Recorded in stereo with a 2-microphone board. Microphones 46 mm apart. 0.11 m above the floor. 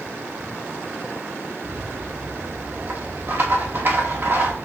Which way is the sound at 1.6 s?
50° right (ahead or behind).